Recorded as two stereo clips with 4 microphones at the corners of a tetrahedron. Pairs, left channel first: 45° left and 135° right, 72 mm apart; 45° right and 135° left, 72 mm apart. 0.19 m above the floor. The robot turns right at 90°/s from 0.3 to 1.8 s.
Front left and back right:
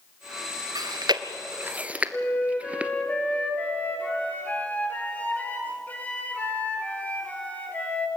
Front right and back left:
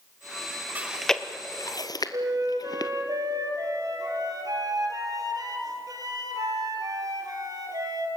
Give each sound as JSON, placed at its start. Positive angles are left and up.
{"t": 0.8, "sound": "chewing", "azimuth_deg": -160, "distance_m": 1.1}
{"t": 2.1, "sound": "a flute", "azimuth_deg": 110, "distance_m": 3.0}